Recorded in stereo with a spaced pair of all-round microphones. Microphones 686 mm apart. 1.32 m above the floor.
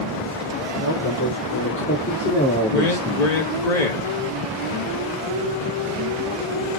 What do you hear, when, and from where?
0.8 s a man speaking: 25° left (ahead or behind), 4 m; by 3.4 s 5° right (ahead or behind), 1.8 m
2.7 s a man speaking: 70° left (ahead or behind), 1.8 m